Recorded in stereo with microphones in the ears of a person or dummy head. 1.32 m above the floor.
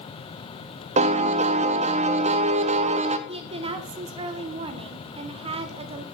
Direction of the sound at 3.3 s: 30° right (ahead or behind).